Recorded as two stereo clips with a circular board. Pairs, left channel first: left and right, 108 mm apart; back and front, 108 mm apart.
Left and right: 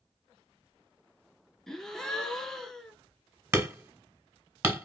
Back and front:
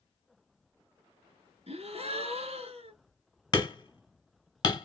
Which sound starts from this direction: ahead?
A gasp, at 1.7 s.